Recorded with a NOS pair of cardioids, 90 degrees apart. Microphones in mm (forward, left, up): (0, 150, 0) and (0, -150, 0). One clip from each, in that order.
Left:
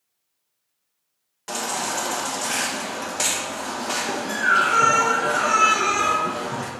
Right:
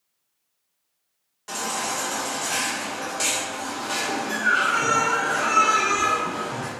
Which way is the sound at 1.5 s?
35° left.